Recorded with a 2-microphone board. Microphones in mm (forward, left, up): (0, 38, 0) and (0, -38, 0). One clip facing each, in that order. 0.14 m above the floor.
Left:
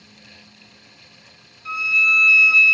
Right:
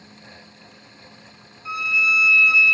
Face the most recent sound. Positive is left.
turn(degrees=-10)  # may be behind; listen again after turning